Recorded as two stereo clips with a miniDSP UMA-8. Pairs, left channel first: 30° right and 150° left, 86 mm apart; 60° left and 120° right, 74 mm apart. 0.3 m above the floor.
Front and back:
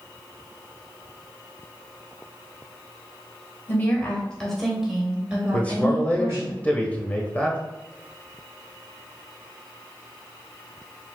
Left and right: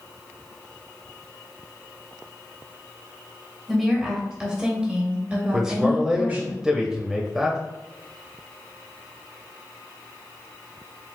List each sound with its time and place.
3.7 s a woman speaking: 30° right, 1.2 m; by 6.5 s 175° right, 1.5 m
5.5 s a man speaking: 55° right, 0.9 m